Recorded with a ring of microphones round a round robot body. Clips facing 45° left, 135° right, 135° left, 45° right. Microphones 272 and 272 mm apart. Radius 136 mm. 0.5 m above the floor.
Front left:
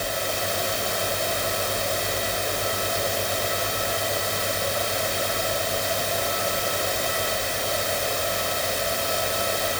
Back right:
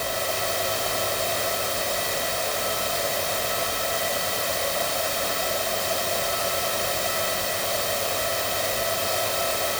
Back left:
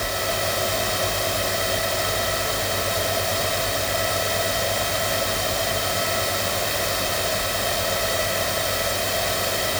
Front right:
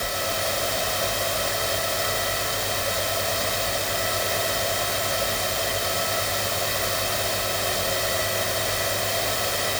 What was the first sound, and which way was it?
Only background noise.